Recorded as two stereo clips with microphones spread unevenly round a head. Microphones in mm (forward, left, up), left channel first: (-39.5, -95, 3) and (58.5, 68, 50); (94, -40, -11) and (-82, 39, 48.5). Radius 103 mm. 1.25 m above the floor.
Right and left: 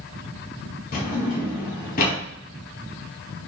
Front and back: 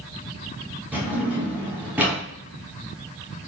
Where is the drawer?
160° right, 0.9 m.